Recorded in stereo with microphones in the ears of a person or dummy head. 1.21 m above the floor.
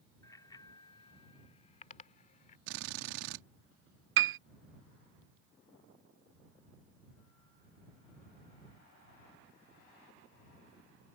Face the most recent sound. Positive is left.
turn(degrees=-65)  # may be behind; listen again after turning